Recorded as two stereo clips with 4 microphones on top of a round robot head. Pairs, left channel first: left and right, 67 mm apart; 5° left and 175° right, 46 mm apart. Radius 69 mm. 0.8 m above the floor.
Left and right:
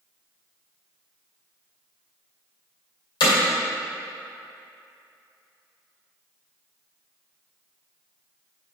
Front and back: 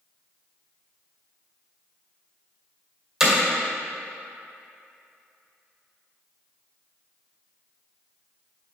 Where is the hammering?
105° left, 2.5 m.